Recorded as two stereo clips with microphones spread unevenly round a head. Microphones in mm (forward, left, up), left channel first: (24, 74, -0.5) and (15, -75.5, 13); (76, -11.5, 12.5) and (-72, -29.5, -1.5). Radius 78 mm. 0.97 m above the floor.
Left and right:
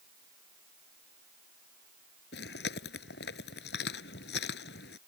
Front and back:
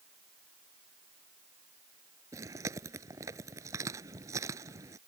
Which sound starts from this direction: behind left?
Chewing, at 2.3 s.